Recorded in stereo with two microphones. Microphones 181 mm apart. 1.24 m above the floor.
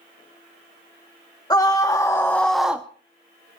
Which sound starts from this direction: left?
A scream, at 1.5 s.